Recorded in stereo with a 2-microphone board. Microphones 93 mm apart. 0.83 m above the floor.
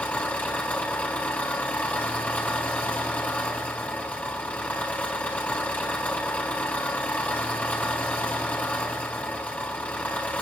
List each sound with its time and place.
0.0 s an engine running: 15° left (ahead or behind), 3.5 m